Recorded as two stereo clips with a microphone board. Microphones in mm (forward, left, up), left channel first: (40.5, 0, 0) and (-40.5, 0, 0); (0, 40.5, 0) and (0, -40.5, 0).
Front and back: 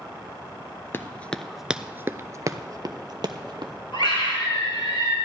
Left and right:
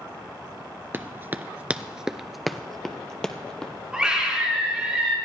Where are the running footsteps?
45° right, 0.6 m; by 3.7 s 170° left, 1.3 m.